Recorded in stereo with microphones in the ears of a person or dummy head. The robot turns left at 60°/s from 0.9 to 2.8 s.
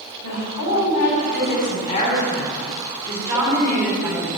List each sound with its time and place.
0.2 s a woman speaking: 95° left, 3.5 m; by 4.4 s 20° right, 3.5 m